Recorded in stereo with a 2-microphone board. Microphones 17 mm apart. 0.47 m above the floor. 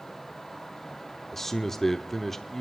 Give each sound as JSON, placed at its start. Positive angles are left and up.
{"t": 1.3, "sound": "a man speaking", "side_deg": 15, "distance_m": 1.0}